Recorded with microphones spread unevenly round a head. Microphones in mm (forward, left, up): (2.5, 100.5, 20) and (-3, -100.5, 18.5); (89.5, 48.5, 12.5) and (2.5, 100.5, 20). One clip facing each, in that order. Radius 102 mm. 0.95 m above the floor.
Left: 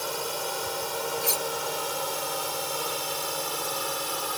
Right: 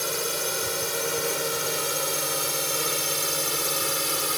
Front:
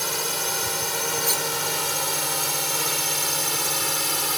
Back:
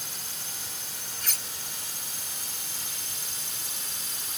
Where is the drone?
30° right.